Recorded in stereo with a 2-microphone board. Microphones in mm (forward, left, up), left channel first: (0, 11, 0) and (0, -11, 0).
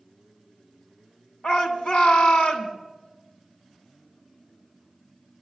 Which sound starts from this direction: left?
A shout, at 1.4 s.